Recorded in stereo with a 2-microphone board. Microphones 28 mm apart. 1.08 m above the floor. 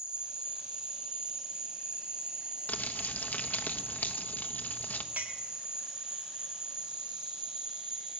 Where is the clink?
80° right, 1.7 m.